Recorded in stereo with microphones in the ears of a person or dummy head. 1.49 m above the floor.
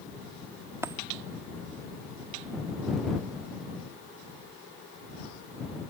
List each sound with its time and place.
0.8 s a dropped coin: 5° right (ahead or behind)